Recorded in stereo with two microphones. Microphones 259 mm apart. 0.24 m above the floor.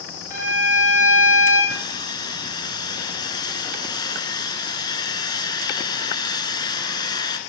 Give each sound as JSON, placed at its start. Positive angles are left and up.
{"t": 0.3, "sound": "a violin", "side_deg": 30, "distance_m": 8.5}
{"t": 1.7, "sound": "sawing", "side_deg": 15, "distance_m": 1.9}